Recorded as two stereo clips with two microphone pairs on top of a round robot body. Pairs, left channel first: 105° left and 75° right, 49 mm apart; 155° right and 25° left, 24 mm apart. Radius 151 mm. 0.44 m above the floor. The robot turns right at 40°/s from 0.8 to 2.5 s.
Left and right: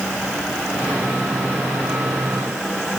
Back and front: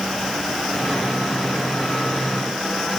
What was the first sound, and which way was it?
Only background noise.